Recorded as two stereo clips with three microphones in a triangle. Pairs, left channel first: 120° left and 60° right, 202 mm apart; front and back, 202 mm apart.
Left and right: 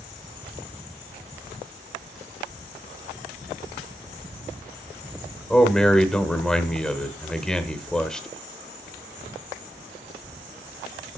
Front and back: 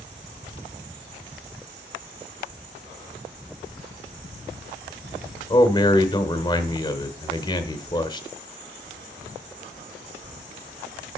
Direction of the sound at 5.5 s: 35° left.